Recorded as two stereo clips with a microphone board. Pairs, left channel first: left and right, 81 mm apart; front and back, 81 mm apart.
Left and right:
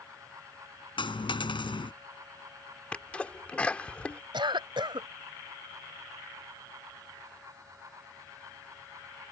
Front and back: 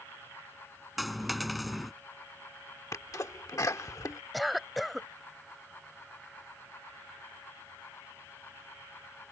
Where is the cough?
90° right.